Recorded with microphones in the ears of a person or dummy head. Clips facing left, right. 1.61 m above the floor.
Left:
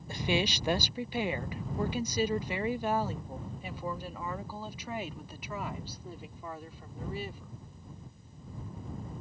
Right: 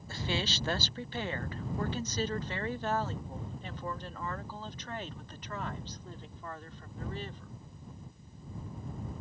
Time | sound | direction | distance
0.1 | a woman speaking | 20° left (ahead or behind) | ?